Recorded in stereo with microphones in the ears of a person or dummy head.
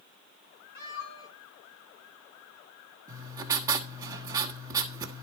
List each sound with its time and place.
0.8 s a cat meowing: 70° left (ahead or behind), 4 m
3.1 s writing: 25° right (ahead or behind), 1.2 m